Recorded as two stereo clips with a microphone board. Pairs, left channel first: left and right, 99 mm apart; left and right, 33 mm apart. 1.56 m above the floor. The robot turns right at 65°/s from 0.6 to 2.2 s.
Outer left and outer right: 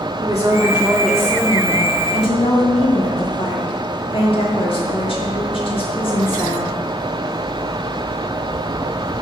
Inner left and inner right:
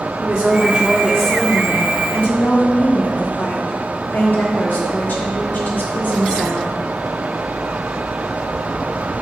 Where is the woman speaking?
35° right, 2 m; by 6.8 s 65° left, 2 m.